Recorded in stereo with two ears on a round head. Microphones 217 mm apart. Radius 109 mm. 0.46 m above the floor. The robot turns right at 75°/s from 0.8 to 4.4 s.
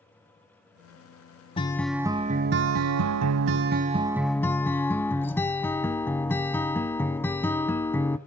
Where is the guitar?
155° left, 0.6 m; by 8.2 s 10° left, 0.6 m.